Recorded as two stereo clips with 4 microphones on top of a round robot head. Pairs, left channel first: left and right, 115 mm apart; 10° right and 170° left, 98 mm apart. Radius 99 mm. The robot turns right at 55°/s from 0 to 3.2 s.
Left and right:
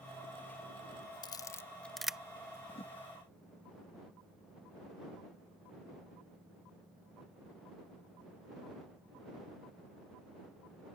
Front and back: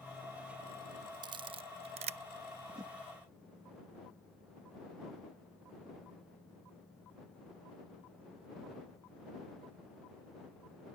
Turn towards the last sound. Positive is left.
turn(degrees=140)